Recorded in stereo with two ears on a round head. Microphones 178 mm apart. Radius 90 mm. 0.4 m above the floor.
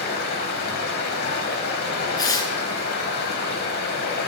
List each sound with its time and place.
0.0 s running water: 50° left (ahead or behind), 1.1 m
2.2 s tearing paper: 20° left (ahead or behind), 0.9 m